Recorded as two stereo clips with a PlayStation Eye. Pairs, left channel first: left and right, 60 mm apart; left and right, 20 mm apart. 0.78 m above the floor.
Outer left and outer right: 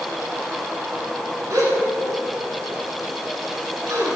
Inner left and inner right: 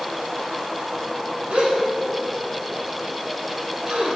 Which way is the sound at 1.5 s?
65° right (ahead or behind).